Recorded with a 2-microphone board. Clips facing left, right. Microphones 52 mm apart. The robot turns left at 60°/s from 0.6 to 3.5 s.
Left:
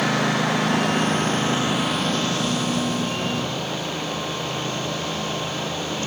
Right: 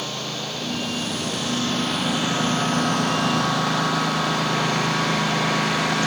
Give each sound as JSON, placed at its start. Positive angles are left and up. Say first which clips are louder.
{"t": 0.0, "sound": "a lawn mower", "louder": "left 9 dB", "azimuth_deg": 80}